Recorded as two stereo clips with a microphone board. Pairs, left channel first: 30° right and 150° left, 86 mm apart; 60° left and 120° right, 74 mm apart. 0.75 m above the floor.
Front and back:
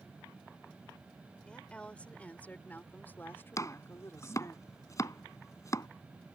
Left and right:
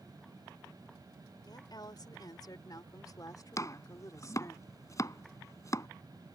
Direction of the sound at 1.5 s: 45° left.